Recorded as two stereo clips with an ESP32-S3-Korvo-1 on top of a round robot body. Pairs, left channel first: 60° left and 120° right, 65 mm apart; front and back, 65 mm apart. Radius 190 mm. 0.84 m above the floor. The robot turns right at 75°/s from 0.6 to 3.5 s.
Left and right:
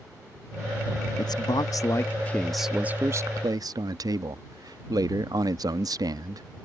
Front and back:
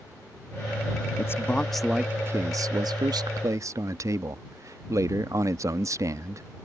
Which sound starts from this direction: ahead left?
A man speaking, at 1.2 s.